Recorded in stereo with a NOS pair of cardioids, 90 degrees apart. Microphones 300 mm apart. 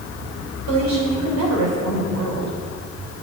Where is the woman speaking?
65° right, 5.5 m.